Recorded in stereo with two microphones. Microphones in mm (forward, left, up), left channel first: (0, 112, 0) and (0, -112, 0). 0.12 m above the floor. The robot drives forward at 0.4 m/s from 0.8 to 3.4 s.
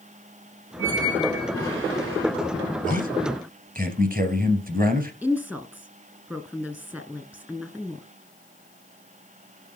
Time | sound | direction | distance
0.8 | a squeak | 60° right (ahead or behind) | 6 m
2.8 | a man speaking | 35° right (ahead or behind) | 2.5 m
5.2 | a woman speaking | 5° right (ahead or behind) | 1.6 m